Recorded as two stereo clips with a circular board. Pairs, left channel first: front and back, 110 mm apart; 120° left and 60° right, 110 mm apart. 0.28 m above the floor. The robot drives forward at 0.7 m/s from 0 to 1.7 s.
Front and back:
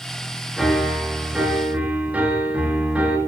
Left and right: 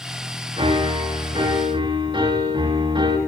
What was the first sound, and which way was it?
A piano, 90° right.